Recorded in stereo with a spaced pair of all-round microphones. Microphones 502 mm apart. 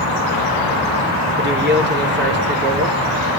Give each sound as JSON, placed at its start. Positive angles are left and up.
{"t": 1.4, "sound": "a man speaking", "side_deg": -20, "distance_m": 3.5}